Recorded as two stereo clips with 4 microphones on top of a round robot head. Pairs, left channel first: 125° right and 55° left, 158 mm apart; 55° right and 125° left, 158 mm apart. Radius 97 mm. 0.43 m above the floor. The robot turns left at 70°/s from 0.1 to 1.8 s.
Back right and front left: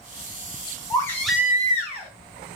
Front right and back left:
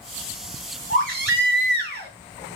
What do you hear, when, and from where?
0.9 s a baby crying: 170° left, 3.5 m; by 2.1 s 105° left, 3.5 m